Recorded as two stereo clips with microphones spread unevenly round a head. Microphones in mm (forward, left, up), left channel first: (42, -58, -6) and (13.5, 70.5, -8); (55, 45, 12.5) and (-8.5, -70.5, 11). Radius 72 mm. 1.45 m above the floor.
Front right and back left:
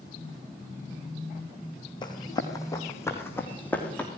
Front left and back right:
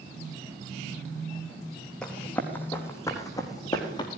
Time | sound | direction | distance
2.0 | running footsteps | 20° right | 4 m